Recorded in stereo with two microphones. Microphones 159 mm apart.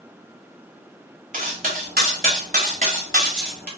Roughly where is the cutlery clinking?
Right.